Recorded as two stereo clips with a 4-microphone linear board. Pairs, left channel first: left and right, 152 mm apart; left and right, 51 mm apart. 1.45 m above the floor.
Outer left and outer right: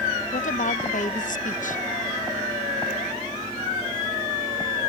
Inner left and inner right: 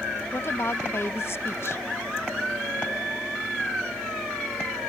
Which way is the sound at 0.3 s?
60° left (ahead or behind).